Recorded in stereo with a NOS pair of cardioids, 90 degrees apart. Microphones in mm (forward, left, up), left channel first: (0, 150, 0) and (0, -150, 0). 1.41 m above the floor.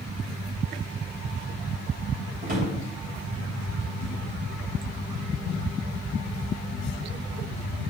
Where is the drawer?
35° right, 3 m.